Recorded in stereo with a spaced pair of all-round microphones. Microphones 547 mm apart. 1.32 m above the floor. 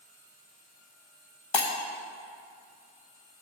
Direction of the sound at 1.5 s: 55° left (ahead or behind).